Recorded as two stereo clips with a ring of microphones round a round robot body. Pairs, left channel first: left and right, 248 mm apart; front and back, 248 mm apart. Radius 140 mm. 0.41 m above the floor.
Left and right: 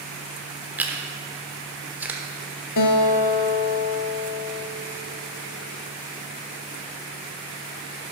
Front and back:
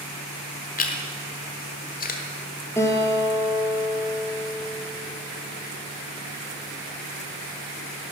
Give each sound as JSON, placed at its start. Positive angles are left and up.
{"t": 0.8, "sound": "chewing", "azimuth_deg": -10, "distance_m": 1.4}
{"t": 2.8, "sound": "a guitar", "azimuth_deg": 80, "distance_m": 1.2}